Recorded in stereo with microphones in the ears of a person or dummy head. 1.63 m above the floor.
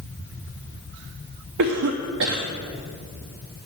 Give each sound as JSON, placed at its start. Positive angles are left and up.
{"t": 1.6, "sound": "a cough", "side_deg": -65, "distance_m": 0.8}